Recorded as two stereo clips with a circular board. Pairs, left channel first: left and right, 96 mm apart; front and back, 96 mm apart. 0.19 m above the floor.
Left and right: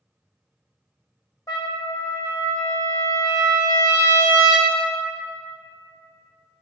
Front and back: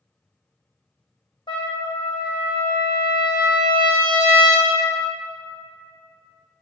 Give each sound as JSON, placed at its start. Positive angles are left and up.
{"t": 1.5, "sound": "a trumpet", "azimuth_deg": 35, "distance_m": 1.5}